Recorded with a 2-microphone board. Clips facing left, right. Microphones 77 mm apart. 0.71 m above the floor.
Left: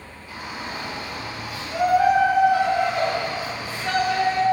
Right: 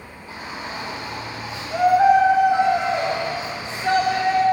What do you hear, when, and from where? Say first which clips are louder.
0.3 s a shout: right 1 dB; 30° right (ahead or behind), 6.5 m; by 4.4 s 25° right (ahead or behind), 4 m